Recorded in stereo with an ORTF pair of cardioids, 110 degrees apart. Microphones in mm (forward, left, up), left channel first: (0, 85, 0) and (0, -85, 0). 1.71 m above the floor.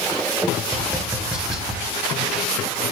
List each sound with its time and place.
0.7 s tapping: 5° right, 1.2 m